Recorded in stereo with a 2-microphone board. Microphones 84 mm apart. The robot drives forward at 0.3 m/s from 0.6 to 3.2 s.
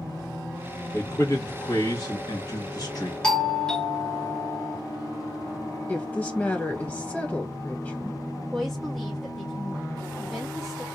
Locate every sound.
0.9 s a man speaking: 40° left (ahead or behind), 1.5 m; by 3.1 s 50° left (ahead or behind), 1.2 m
3.2 s a doorbell: 10° left (ahead or behind), 0.7 m
5.9 s a woman speaking: 20° left (ahead or behind), 0.8 m
8.5 s a woman speaking: 5° left (ahead or behind), 0.7 m